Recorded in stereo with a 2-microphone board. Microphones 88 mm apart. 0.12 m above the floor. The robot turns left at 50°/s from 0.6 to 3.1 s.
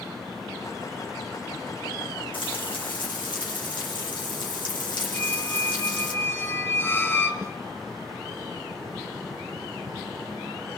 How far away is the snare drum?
About 1.0 m.